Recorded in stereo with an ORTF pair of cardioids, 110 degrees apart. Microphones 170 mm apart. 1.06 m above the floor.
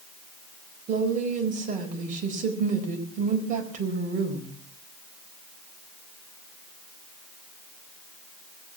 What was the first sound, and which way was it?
A woman speaking, 50° right.